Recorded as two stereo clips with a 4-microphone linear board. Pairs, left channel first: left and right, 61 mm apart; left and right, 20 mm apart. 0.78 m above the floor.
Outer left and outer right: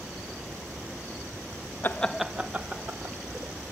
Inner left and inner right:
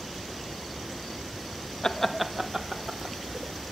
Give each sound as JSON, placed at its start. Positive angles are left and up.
{"t": 1.8, "sound": "laughter", "side_deg": 35, "distance_m": 0.6}